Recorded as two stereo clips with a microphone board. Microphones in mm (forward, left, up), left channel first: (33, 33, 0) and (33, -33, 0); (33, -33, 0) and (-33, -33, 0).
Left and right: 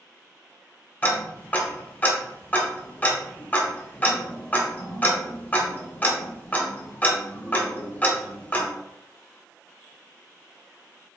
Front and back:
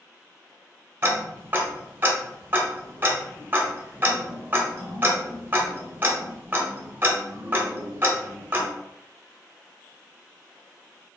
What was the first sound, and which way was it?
Ticking, 140° left.